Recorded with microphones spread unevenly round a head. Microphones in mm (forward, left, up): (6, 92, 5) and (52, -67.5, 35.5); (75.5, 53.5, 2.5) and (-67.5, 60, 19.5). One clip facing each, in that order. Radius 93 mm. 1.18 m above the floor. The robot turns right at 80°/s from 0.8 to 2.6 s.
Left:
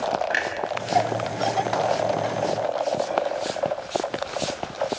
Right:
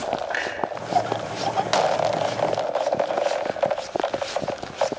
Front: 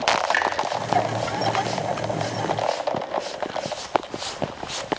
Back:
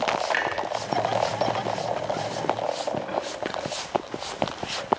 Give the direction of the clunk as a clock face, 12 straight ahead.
11 o'clock.